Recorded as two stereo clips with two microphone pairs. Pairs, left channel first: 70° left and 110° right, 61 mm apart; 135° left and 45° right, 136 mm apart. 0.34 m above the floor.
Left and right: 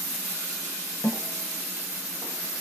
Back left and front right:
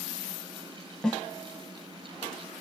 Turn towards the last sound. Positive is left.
turn(degrees=50)